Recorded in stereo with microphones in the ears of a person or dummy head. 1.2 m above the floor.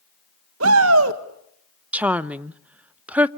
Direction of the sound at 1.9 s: 10° right (ahead or behind).